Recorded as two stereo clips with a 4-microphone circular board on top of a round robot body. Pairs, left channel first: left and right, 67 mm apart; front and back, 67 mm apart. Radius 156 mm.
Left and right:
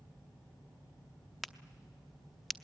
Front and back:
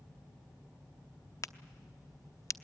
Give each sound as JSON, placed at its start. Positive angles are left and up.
{"t": 1.4, "sound": "a crack", "azimuth_deg": 0, "distance_m": 0.9}